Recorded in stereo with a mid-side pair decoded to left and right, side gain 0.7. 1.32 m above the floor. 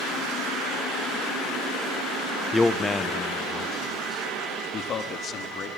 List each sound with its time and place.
2.5 s a man speaking: 5° left, 0.7 m; by 5.7 s 40° left, 2.5 m